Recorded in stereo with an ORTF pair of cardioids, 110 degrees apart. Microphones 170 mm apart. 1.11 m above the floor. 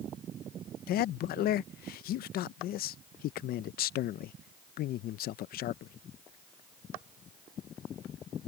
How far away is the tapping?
No tapping in this recording.